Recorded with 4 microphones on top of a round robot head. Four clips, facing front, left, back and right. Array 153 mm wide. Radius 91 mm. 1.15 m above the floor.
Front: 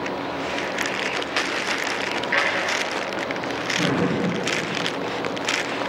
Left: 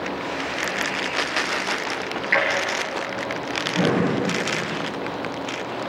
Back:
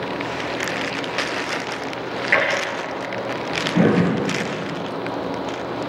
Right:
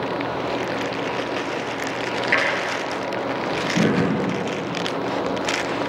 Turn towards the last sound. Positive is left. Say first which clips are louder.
# left 4 dB, back 4 dB
turn(degrees=-155)